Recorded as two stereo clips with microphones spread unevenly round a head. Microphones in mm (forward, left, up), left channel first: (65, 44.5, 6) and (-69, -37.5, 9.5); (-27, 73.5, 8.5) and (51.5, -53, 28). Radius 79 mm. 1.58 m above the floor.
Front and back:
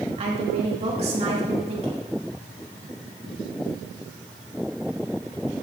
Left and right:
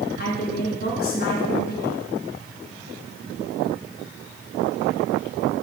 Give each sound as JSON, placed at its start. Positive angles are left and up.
{"t": 0.2, "sound": "a woman speaking", "azimuth_deg": 155, "distance_m": 3.5}